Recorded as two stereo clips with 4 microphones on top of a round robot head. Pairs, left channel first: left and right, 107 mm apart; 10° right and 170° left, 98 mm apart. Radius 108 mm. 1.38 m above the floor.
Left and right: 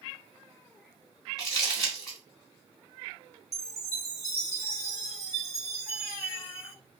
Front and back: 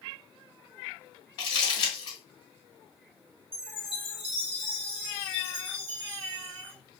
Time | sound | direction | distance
1.4 | crumpling | 25° left | 1.7 m
3.5 | a chime | 155° left | 0.7 m